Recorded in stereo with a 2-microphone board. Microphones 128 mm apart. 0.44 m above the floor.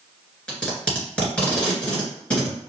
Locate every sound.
0.5 s tape being pulled: 10° left (ahead or behind), 1.6 m